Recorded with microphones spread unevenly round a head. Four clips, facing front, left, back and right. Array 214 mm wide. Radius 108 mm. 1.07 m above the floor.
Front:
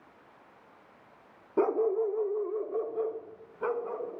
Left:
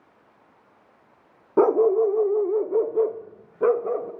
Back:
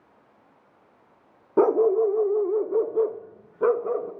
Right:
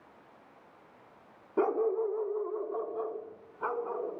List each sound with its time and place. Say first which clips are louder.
1.6 s a dog barking: left 11 dB, back 8 dB; 135° left, 0.7 m